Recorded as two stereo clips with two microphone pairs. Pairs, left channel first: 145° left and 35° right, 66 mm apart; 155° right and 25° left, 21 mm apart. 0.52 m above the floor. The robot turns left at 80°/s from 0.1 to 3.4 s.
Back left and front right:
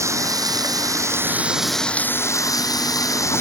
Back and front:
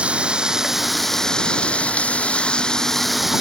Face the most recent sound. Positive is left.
turn(degrees=95)